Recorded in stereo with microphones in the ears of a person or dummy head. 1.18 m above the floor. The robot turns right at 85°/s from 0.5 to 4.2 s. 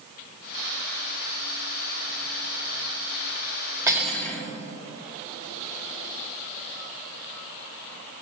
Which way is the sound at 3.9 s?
15° right (ahead or behind).